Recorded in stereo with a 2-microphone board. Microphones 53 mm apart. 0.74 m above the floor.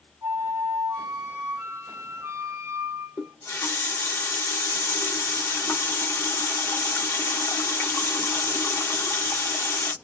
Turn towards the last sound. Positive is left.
turn(degrees=60)  # may be behind; listen again after turning